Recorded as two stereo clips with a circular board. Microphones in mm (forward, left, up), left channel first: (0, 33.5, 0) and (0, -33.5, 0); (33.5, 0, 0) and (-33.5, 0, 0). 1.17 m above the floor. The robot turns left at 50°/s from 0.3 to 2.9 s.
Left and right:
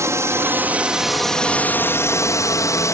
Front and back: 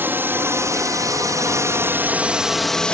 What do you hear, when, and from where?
0.0 s a drone: 125° right; by 3.0 s 70° left